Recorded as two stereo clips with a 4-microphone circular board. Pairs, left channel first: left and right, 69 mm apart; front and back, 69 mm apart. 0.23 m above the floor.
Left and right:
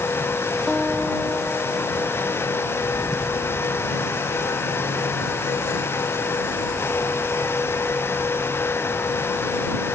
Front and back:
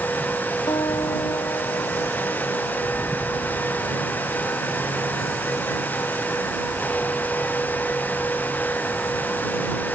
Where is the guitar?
Straight ahead.